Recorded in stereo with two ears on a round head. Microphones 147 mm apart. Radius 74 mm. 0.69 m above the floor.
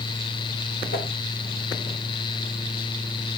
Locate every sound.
0.9 s a whoosh: 65° left (ahead or behind), 2.5 m